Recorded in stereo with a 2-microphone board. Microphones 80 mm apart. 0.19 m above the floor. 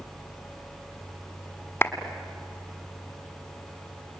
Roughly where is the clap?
Left.